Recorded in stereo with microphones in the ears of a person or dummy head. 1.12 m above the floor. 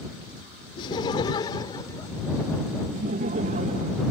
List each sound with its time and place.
0.8 s laughter: 30° left (ahead or behind); by 2.9 s 15° left (ahead or behind)
2.9 s laughter: 40° right (ahead or behind)